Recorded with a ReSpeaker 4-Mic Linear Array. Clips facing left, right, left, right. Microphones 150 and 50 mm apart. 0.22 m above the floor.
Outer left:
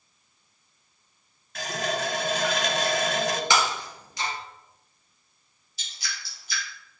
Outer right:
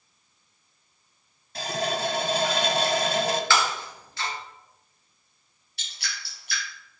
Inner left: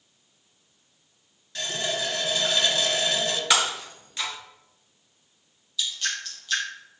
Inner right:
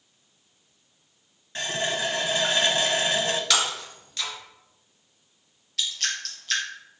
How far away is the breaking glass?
About 1.9 m.